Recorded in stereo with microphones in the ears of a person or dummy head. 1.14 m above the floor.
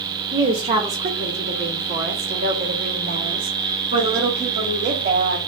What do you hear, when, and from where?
0.3 s a woman speaking: 20° right (ahead or behind), 0.7 m; by 5.4 s 40° right (ahead or behind), 2.5 m